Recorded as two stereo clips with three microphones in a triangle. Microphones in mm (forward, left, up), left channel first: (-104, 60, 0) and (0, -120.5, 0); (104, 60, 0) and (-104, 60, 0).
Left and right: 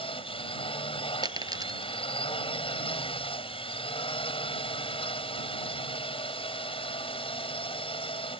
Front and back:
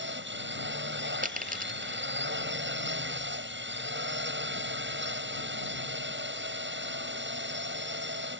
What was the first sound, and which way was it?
A drone, straight behind.